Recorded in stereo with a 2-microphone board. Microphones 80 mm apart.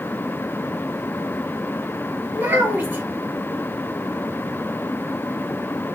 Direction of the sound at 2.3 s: 20° right (ahead or behind).